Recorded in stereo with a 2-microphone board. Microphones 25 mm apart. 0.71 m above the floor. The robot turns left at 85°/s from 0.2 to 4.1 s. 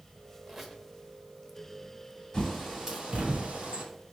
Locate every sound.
0.5 s a squeak: 165° right, 1.0 m; by 0.8 s 165° left, 1.0 m
2.3 s a bird: 20° left (ahead or behind), 1.8 m; by 3.8 s 75° right (ahead or behind), 1.8 m